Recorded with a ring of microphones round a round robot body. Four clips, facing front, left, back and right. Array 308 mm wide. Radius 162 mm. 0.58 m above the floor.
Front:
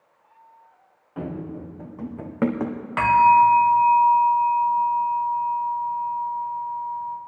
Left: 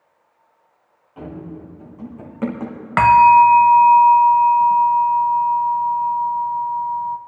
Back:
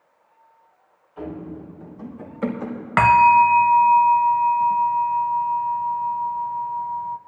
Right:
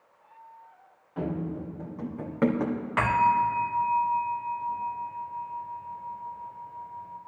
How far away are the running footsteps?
About 2.5 m.